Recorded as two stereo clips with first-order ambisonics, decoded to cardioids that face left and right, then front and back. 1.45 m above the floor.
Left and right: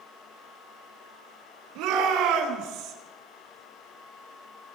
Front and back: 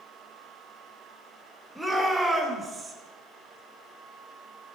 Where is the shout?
85° right, 3.5 m; by 3.0 s 115° right, 2.5 m.